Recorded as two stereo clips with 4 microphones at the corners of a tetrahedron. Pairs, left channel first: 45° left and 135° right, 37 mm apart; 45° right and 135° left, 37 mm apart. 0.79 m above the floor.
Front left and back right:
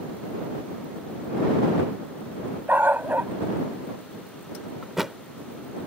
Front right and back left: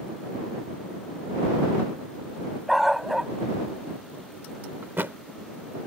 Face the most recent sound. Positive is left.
turn(degrees=150)